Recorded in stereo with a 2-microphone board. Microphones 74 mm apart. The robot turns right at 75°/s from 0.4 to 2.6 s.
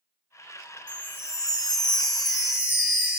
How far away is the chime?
About 0.5 m.